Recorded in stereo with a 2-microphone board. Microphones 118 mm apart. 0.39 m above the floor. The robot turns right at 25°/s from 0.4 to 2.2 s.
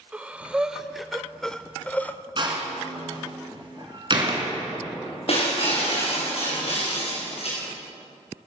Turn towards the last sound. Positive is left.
turn(degrees=55)  # may be behind; listen again after turning